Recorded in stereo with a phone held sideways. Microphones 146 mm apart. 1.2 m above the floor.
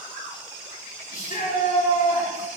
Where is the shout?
85° left, 3 m.